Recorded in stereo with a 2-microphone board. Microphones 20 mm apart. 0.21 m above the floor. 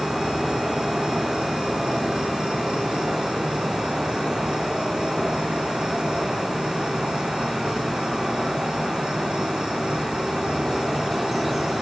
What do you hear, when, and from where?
0.0 s an insect: 45° right (ahead or behind), 7 m